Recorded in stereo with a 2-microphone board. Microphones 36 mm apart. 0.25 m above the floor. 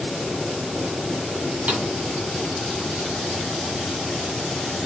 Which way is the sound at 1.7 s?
55° right (ahead or behind).